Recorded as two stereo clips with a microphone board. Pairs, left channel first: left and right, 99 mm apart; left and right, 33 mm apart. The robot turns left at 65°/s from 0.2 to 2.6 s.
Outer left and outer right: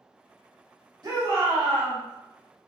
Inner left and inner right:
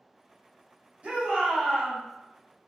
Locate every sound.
1.0 s a shout: 130° right, 1.8 m; by 2.0 s 170° left, 1.8 m